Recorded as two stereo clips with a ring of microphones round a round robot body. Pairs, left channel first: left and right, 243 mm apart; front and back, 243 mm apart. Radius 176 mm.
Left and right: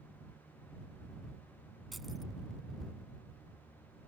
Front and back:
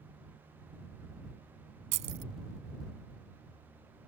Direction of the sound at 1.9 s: Straight behind.